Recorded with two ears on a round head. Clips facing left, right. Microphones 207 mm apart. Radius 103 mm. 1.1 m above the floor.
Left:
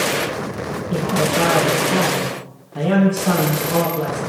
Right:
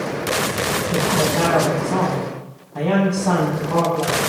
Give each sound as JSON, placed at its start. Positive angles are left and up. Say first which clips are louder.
{"t": 0.9, "sound": "a man speaking", "louder": "left 2 dB", "side_deg": 15, "distance_m": 8.0}